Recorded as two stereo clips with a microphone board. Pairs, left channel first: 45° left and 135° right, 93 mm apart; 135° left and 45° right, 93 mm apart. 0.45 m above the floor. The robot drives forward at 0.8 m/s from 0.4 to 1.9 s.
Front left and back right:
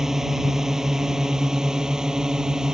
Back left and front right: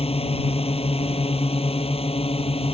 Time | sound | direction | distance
0.0 | a drone | 140° left | ?